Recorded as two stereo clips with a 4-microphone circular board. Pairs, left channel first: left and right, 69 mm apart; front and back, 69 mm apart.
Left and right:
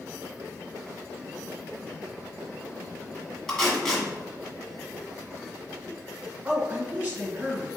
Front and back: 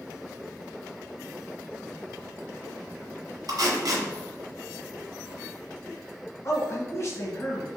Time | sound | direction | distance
3.5 | tape being pulled | 170° left | 1.5 m
6.4 | a man speaking | 20° right | 1.4 m